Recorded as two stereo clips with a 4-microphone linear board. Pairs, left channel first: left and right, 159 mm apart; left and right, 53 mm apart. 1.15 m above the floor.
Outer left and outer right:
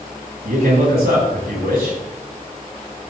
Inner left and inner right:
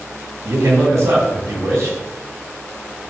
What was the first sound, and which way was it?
A man speaking, 75° right (ahead or behind).